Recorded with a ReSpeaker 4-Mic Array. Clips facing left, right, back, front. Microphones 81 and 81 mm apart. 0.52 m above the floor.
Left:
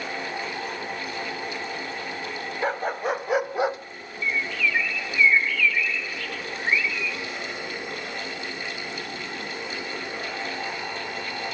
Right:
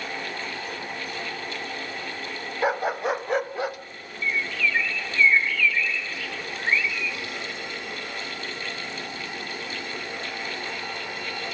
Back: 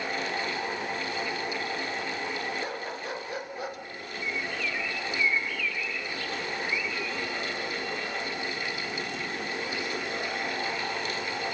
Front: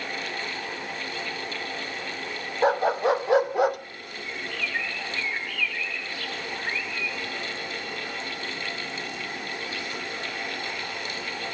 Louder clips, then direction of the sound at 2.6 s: Right 2 dB, front 13 dB; 10° right.